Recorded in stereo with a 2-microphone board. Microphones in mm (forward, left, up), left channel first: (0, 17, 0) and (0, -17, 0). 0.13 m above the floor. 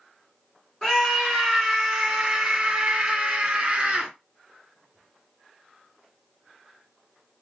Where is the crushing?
No crushing in this recording.